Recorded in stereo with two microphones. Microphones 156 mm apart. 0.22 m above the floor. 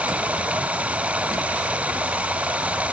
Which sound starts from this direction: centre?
Running water, at 0.0 s.